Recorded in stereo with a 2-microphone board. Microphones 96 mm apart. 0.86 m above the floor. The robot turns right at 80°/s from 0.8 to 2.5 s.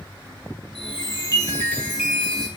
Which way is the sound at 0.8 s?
90° left.